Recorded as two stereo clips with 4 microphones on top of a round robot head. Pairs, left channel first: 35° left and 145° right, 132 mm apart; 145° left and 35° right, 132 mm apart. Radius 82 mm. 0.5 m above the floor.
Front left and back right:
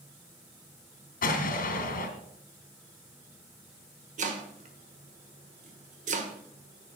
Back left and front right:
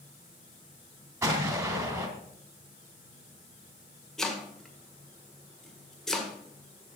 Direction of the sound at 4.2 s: 130° right.